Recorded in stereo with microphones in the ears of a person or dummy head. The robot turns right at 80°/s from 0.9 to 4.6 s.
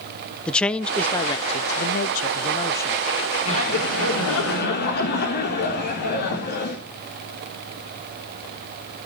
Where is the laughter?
35° left, 4 m; by 6.8 s 125° left, 4 m.